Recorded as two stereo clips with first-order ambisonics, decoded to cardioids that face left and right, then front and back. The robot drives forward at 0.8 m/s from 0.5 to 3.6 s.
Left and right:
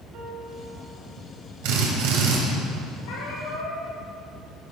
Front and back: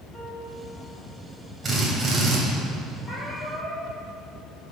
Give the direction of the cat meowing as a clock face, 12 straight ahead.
9 o'clock.